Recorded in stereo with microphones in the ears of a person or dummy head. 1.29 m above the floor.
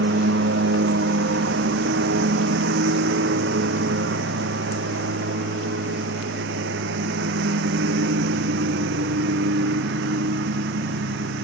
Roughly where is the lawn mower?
Right.